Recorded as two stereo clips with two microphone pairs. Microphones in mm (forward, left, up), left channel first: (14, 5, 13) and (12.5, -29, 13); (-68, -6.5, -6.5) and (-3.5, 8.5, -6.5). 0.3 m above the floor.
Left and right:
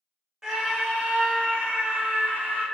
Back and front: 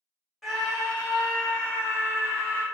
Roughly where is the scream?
Right.